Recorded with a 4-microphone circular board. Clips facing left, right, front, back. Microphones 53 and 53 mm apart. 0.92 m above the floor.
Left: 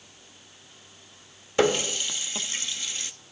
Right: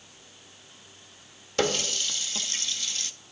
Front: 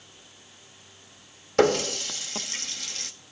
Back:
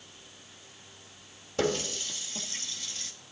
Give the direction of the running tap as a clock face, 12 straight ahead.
11 o'clock.